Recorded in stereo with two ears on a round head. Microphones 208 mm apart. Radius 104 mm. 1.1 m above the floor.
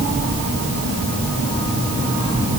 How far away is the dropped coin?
No dropped coin in this recording.